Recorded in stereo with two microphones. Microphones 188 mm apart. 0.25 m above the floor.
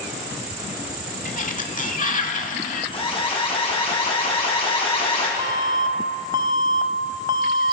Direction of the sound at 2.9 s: 30° left (ahead or behind).